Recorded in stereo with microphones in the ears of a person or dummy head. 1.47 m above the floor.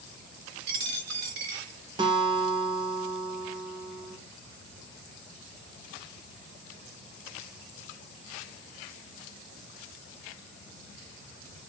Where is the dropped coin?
35° right (ahead or behind), 2.5 m.